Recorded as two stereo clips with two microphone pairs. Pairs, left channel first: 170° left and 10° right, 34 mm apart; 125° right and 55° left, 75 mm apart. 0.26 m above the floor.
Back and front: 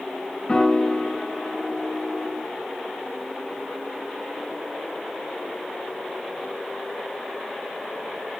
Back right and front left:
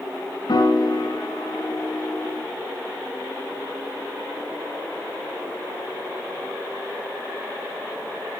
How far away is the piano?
About 2 m.